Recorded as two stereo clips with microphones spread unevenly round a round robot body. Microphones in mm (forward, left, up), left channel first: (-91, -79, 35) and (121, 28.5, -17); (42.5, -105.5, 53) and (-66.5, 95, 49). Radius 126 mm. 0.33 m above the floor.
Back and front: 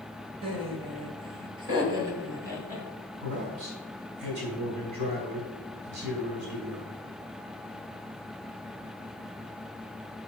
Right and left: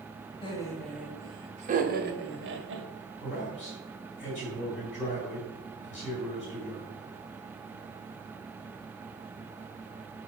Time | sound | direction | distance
0.4 | laughter | 5° right | 1.5 m
3.2 | a man speaking | 5° right | 3 m